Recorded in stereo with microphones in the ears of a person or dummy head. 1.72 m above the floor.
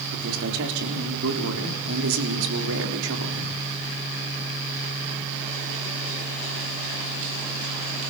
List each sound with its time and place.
0.1 s a man speaking: 70° right (ahead or behind), 4 m